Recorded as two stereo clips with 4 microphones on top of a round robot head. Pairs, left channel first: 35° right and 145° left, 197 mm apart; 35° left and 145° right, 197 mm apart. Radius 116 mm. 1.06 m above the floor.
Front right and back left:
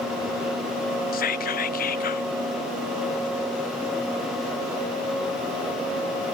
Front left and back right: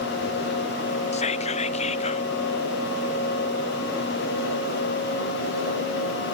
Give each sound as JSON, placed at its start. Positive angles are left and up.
{"t": 1.1, "sound": "whispering", "azimuth_deg": -10, "distance_m": 0.6}